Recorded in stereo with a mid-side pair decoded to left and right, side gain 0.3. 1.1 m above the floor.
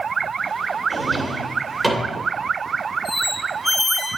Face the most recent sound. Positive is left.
turn(degrees=10)